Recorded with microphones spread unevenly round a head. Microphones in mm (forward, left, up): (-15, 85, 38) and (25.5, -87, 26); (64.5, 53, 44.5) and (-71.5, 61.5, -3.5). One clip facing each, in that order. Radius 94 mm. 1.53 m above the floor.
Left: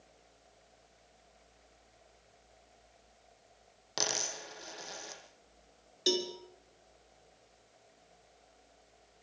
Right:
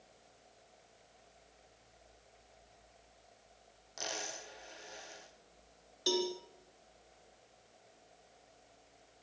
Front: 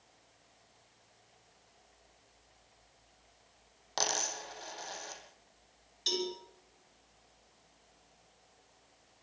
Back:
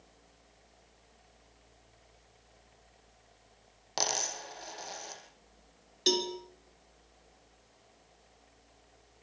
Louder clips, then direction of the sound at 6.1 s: Left 1 dB, back 6 dB; 170° left.